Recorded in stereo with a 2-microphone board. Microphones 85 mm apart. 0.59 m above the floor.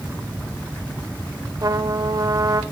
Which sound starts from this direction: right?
A trumpet, at 1.6 s.